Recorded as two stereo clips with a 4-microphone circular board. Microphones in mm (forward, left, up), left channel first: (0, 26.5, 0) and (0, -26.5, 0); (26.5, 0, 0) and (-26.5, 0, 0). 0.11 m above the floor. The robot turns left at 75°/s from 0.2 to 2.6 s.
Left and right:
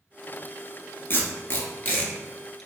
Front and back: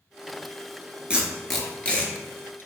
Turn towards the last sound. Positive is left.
turn(degrees=5)